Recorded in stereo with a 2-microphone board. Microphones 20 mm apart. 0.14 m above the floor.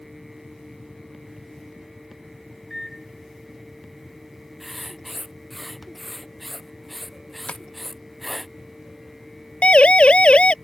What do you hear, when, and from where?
2.7 s a microwave: 5° left (ahead or behind)
4.6 s writing: 5° left (ahead or behind)
7.5 s tapping: 75° left (ahead or behind)
9.6 s a siren: 65° left (ahead or behind)